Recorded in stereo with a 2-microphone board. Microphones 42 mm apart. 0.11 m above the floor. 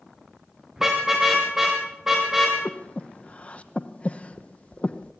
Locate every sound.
0.8 s a car horn: 10° right (ahead or behind), 5.5 m
2.6 s breathing: 30° left (ahead or behind), 1.0 m